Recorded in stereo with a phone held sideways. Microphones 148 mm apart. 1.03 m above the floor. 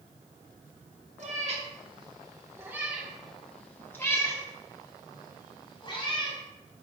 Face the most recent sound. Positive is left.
turn(degrees=40)  # may be behind; listen again after turning